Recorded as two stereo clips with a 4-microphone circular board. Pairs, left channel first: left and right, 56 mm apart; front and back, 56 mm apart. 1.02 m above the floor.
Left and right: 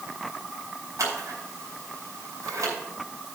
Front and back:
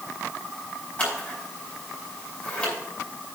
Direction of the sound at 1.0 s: 70° right.